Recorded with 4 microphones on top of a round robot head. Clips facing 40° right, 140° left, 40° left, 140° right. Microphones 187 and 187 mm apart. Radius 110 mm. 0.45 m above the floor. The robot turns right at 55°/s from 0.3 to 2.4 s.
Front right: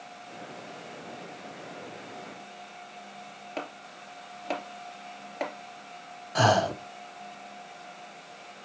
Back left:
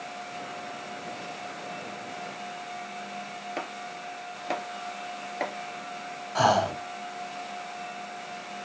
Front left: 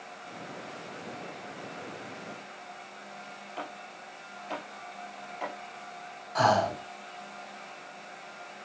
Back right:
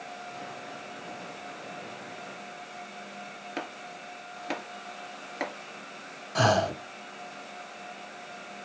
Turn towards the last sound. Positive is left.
turn(degrees=-100)